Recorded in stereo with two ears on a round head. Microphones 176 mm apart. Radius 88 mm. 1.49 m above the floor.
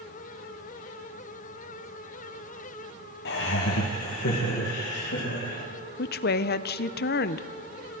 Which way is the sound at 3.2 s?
55° left (ahead or behind).